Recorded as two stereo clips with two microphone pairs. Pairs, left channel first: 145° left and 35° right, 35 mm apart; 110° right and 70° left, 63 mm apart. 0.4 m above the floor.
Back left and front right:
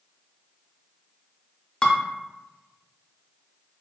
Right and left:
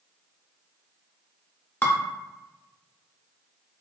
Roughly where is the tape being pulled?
No tape being pulled in this recording.